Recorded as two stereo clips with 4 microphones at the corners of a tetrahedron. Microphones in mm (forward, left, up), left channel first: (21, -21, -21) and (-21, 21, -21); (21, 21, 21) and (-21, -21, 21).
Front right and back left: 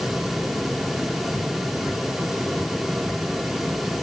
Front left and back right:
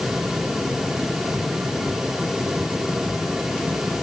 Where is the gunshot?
I don't hear a gunshot.